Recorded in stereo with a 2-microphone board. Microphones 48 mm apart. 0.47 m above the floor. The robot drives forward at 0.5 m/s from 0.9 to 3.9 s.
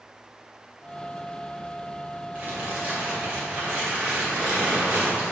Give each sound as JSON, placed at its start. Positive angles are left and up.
{"t": 2.4, "sound": "crumpling", "side_deg": -35, "distance_m": 2.5}